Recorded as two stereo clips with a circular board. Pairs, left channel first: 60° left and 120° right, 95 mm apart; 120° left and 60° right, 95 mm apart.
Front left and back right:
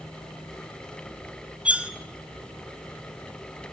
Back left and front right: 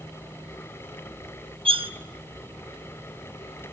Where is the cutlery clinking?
45° right, 0.8 m.